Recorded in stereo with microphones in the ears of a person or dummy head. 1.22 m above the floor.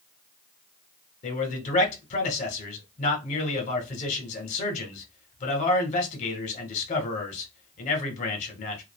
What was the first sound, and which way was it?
A man speaking, 40° left (ahead or behind).